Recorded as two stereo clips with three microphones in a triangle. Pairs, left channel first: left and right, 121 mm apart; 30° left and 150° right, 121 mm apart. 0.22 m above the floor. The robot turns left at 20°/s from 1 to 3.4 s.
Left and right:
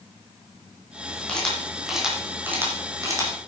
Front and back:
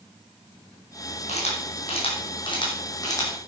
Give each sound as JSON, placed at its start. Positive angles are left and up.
{"t": 1.3, "sound": "a camera shutter", "azimuth_deg": 10, "distance_m": 5.5}